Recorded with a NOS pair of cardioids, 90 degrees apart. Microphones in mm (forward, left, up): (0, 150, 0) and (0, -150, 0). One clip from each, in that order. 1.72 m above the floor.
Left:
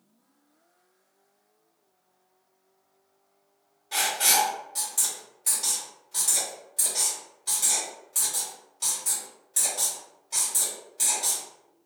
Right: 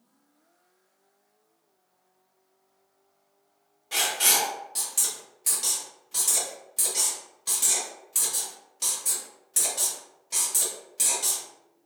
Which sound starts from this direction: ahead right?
Writing, at 3.9 s.